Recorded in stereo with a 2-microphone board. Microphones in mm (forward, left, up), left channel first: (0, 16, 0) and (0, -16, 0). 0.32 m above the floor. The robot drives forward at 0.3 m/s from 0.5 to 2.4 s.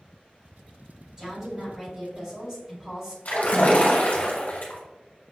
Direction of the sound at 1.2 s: 15° right (ahead or behind).